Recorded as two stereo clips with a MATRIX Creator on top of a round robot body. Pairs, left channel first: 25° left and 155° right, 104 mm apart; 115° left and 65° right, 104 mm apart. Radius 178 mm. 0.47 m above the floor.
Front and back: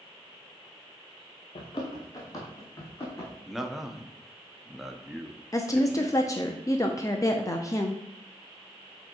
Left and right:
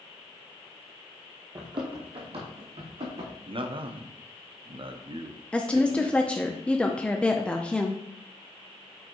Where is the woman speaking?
40° left, 0.8 m.